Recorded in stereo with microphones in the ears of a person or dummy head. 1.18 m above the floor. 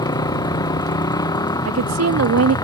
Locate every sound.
0.0 s a motorcycle: 20° left (ahead or behind)
1.6 s a woman speaking: 80° right